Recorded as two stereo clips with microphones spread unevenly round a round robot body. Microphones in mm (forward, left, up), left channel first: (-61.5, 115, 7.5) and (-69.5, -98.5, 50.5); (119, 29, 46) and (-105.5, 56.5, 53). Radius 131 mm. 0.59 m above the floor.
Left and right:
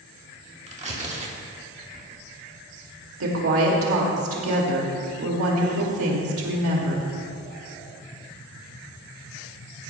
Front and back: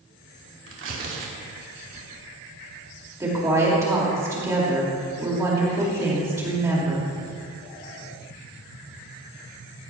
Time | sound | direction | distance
0.7 | tearing paper | 150° right | 2.5 m
3.2 | a woman speaking | 110° right | 2 m